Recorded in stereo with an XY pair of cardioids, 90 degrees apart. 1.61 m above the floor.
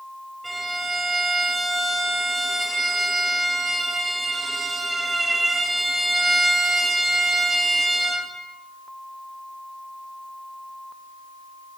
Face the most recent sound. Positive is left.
turn(degrees=-20)